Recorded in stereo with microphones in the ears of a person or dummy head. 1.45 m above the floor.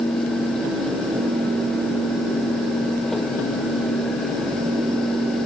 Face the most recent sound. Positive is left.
No sound to turn to.